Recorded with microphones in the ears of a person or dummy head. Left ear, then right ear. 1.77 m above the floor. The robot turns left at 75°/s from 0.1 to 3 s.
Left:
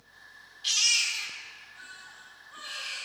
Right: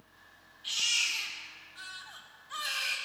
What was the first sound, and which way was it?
A baby crying, 40° left (ahead or behind).